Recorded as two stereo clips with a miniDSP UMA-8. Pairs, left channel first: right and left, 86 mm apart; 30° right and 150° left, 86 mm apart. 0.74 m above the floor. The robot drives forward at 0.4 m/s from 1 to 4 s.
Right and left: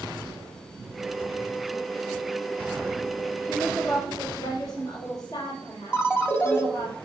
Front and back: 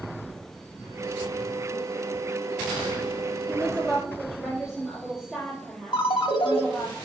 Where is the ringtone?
25° right, 0.8 m.